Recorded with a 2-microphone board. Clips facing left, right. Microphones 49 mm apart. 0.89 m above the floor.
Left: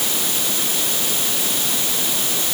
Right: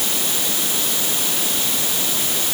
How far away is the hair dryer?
I don't hear a hair dryer.